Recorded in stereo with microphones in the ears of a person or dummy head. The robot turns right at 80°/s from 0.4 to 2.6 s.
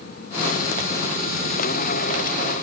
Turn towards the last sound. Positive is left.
No sound to turn to.